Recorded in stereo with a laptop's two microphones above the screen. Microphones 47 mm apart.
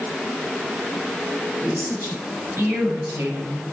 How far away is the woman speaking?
About 5.5 m.